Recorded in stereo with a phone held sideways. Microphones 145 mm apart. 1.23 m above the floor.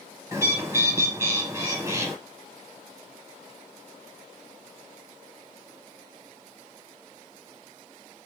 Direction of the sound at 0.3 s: 20° right (ahead or behind).